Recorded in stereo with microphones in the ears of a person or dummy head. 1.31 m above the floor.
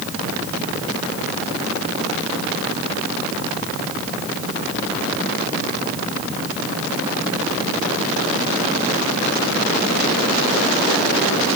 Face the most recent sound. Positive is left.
No sound to turn to.